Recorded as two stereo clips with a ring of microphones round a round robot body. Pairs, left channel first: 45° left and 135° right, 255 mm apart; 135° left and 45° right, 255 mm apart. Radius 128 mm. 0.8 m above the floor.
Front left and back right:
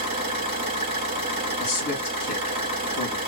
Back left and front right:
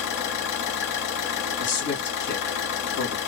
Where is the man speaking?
85° left, 1.9 m.